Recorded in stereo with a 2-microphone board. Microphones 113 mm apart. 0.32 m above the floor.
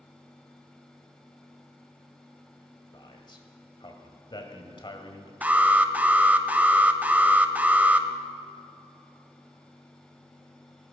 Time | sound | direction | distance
2.9 | a man speaking | 45° left (ahead or behind) | 1.8 m
5.4 | an alarm | 15° right (ahead or behind) | 0.7 m